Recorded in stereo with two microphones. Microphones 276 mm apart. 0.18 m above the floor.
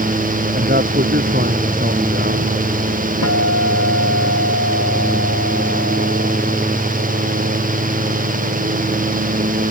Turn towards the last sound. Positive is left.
turn(degrees=65)  # may be behind; listen again after turning